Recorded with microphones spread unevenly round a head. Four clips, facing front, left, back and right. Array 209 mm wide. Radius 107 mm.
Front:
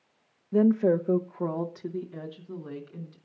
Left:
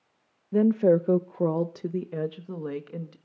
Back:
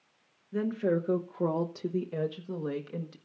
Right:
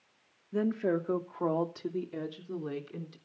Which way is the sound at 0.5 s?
50° left.